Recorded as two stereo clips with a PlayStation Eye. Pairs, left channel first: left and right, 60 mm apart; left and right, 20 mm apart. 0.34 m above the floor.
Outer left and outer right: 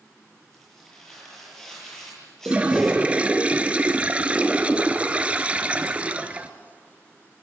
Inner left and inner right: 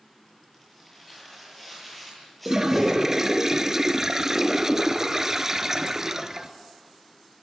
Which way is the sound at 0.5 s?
10° left (ahead or behind).